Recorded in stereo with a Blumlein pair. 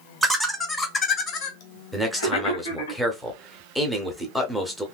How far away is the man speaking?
About 0.8 m.